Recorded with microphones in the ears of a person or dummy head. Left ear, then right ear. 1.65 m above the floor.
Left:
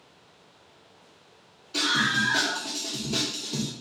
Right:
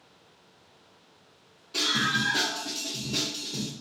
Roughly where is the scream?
Centre.